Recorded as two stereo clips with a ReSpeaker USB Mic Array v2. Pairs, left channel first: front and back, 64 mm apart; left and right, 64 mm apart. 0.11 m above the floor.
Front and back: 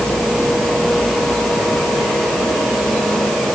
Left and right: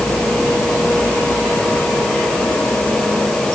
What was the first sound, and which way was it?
Only background noise.